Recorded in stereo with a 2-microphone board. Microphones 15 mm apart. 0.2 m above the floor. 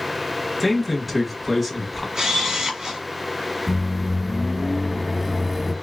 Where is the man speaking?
10° right (ahead or behind), 1.0 m.